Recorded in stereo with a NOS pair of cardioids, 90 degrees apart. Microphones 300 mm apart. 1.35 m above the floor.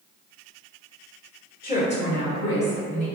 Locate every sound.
1.6 s a woman speaking: 30° left, 1.1 m; by 3.1 s 75° left, 1.7 m